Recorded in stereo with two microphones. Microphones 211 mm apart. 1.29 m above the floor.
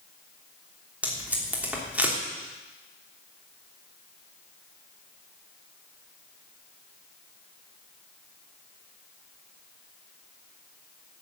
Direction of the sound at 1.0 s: 5° right (ahead or behind).